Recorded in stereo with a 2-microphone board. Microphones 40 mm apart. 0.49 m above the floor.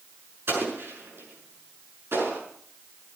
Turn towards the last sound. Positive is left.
turn(degrees=-80)